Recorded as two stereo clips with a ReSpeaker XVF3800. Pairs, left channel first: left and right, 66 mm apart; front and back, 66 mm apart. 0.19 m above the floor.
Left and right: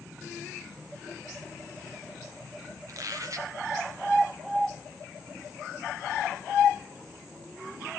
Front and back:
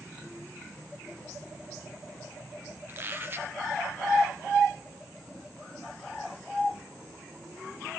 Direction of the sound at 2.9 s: 120° right.